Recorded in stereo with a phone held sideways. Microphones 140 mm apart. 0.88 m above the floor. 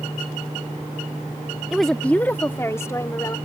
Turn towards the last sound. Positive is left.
turn(degrees=25)  # may be behind; listen again after turning